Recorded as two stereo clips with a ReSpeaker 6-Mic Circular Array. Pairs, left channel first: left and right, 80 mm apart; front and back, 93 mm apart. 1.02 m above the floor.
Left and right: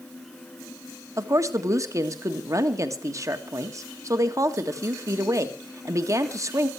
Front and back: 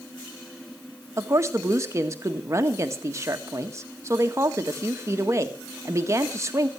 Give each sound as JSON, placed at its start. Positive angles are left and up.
{"t": 1.2, "sound": "a woman speaking", "azimuth_deg": -130, "distance_m": 1.6}